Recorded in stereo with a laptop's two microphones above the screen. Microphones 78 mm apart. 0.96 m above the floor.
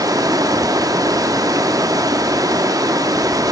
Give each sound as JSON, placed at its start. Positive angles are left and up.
{"t": 0.0, "sound": "running water", "side_deg": -55, "distance_m": 0.7}